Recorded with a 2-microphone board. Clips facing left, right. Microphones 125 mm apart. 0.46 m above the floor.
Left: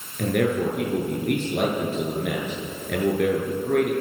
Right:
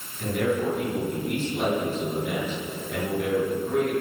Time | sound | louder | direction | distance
0.2 | a man speaking | left 3 dB | 70° left (ahead or behind) | 8 m